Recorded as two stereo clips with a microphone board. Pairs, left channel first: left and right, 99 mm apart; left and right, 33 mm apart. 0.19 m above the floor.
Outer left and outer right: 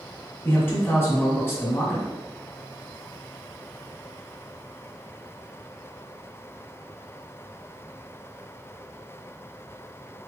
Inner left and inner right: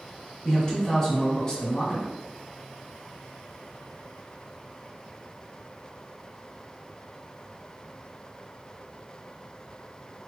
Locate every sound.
0.4 s a man speaking: 25° left (ahead or behind), 2 m